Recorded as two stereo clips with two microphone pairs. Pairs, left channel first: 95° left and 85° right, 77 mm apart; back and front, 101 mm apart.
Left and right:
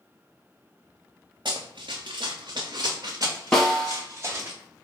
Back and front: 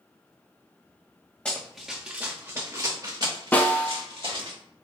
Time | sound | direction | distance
1.4 | running footsteps | 100° right | 0.9 m
3.5 | a snare drum | 160° left | 1.3 m